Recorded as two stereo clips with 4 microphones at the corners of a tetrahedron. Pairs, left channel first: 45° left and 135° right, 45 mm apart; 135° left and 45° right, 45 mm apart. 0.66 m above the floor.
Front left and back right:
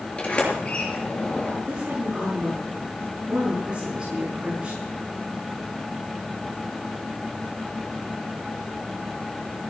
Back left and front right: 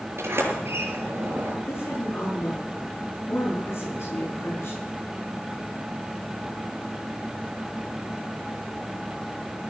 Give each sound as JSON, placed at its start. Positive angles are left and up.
{"t": 0.2, "sound": "a sliding door", "azimuth_deg": -25, "distance_m": 6.5}
{"t": 1.6, "sound": "a woman speaking", "azimuth_deg": 155, "distance_m": 9.5}